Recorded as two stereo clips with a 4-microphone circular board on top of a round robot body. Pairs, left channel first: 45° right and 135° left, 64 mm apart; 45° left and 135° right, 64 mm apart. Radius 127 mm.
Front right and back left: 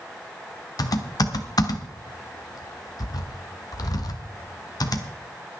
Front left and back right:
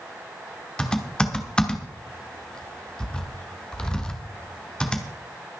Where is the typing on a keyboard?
30° right, 1.4 m.